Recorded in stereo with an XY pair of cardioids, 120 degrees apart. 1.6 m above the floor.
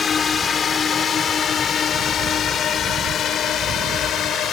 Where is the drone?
35° left; by 4.5 s 60° left.